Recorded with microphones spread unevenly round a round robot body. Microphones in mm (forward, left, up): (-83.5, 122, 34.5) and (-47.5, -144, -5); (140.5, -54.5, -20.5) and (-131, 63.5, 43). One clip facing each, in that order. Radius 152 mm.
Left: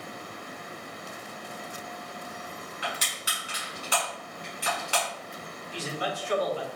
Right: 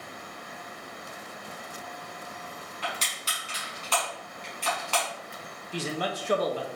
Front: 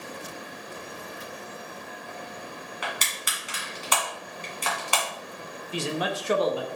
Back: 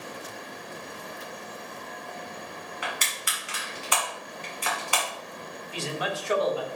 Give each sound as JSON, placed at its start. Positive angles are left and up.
{"t": 2.8, "sound": "crushing", "azimuth_deg": 25, "distance_m": 1.4}
{"t": 5.7, "sound": "a man speaking", "azimuth_deg": -50, "distance_m": 0.6}